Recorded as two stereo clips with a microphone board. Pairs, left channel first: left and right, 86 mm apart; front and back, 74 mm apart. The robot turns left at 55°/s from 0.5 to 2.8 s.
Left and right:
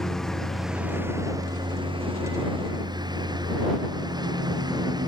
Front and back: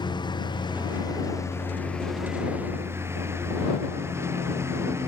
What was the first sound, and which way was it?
A lawn mower, 5° left.